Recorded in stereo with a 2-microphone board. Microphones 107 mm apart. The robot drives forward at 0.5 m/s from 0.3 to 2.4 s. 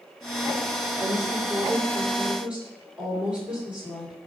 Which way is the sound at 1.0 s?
15° right (ahead or behind).